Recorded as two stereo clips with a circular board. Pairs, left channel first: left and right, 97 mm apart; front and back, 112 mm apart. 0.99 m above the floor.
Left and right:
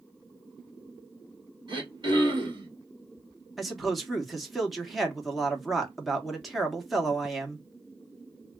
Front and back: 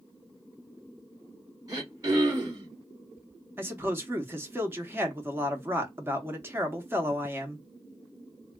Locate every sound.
1.7 s throat clearing: 125° right, 1.8 m
3.6 s a man speaking: 175° right, 0.8 m